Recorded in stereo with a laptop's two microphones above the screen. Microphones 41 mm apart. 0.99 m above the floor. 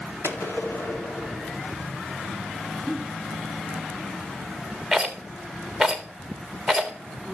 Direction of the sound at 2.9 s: 5° left (ahead or behind).